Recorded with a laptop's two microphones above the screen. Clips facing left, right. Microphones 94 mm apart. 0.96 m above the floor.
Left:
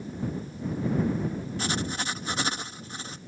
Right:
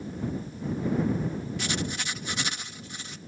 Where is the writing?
35° left (ahead or behind).